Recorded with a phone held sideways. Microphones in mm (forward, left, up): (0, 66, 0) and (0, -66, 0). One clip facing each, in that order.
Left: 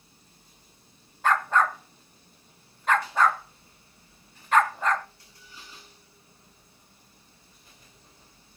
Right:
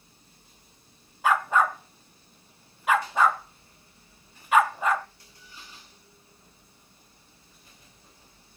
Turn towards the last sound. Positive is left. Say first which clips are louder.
# even
turn(degrees=-10)  # may be behind; listen again after turning